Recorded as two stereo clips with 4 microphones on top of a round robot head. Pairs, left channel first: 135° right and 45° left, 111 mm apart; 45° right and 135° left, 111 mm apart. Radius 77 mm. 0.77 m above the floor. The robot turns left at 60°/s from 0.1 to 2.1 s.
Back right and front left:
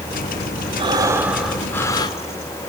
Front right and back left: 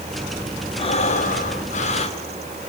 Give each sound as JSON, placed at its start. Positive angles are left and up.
{"t": 0.8, "sound": "breathing", "azimuth_deg": 0, "distance_m": 2.0}